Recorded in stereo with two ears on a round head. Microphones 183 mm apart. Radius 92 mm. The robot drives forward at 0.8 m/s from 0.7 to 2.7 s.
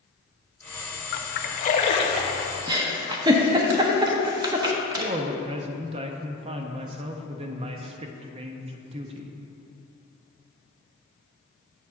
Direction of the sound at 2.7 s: 20° right (ahead or behind).